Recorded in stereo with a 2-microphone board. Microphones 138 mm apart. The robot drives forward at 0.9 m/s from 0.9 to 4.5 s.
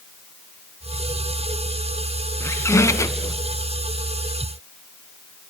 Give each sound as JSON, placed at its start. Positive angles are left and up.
{"t": 2.4, "sound": "a squeak", "side_deg": 20, "distance_m": 1.3}